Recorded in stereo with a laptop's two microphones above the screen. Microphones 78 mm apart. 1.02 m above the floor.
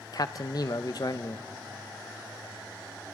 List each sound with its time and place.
0.1 s a man speaking: 50° left (ahead or behind), 0.7 m